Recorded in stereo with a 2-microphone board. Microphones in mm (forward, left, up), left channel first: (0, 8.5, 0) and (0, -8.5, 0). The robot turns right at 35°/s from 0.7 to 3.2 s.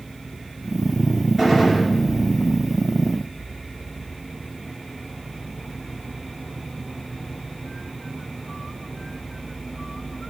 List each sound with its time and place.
1.4 s a gunshot: 10° right (ahead or behind), 4 m; by 1.9 s 5° left (ahead or behind), 4 m